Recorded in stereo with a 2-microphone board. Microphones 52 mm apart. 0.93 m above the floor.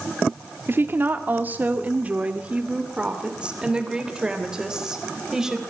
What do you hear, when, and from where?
0.7 s a woman speaking: 45° right (ahead or behind), 1.6 m; by 5.6 s 10° right (ahead or behind), 3.5 m